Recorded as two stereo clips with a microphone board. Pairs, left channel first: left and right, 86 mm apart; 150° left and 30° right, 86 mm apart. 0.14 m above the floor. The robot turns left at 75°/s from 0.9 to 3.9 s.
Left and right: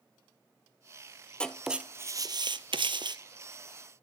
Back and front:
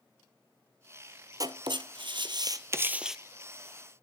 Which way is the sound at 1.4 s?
15° left.